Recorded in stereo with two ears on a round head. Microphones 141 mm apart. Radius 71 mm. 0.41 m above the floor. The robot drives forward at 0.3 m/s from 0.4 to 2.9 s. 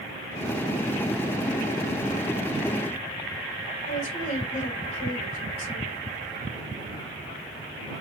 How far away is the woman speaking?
About 3 m.